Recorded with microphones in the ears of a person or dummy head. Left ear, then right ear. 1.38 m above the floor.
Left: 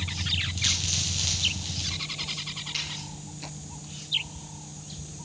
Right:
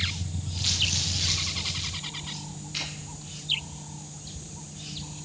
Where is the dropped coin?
10° left (ahead or behind), 2 m.